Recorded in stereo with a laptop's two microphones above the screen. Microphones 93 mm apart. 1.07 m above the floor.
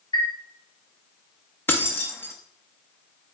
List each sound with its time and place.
0.1 s a chime: 60° left (ahead or behind), 1.0 m
1.7 s keys jangling: 25° left (ahead or behind), 0.9 m